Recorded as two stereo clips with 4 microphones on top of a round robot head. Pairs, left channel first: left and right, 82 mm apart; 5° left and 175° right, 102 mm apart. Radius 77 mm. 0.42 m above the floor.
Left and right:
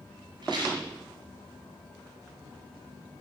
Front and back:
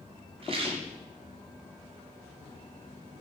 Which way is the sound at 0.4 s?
135° right.